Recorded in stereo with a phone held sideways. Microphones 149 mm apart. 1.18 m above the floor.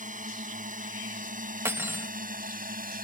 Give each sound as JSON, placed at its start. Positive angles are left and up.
{"t": 0.0, "sound": "a drone", "side_deg": -60}
{"t": 1.6, "sound": "cutlery clinking", "side_deg": -15}